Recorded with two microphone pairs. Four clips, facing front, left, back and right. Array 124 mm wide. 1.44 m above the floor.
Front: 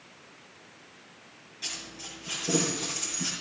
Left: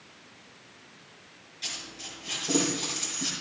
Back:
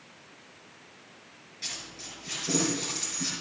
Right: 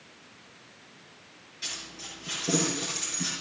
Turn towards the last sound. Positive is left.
turn(degrees=-65)